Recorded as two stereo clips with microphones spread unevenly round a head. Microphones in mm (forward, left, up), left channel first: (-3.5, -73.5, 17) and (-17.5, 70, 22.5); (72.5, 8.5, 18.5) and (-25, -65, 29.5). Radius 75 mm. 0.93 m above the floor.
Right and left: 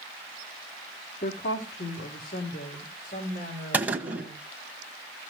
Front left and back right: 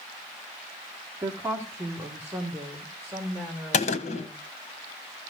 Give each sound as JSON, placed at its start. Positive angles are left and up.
{"t": 1.2, "sound": "a woman speaking", "azimuth_deg": -75, "distance_m": 2.0}
{"t": 3.7, "sound": "a gunshot", "azimuth_deg": 20, "distance_m": 1.3}